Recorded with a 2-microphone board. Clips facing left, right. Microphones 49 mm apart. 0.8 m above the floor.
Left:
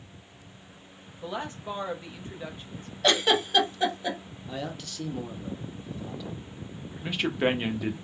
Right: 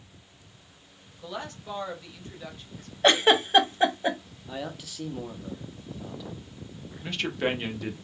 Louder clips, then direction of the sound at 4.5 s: Even; 5° right (ahead or behind).